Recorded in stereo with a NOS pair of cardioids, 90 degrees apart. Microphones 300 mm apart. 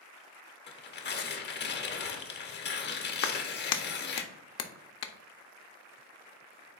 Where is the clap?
60° left, 0.6 m.